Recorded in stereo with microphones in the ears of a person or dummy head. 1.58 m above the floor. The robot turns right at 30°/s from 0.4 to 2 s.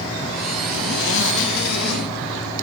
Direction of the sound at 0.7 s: 55° left.